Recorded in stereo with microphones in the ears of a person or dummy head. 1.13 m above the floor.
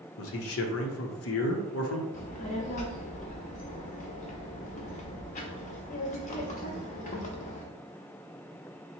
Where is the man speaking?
65° left (ahead or behind), 0.7 m.